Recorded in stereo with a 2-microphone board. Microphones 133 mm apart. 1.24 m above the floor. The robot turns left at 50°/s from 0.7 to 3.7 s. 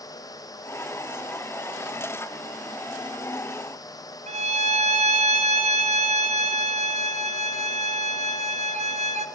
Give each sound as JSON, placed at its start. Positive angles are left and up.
{"t": 4.3, "sound": "a violin", "side_deg": -55, "distance_m": 2.0}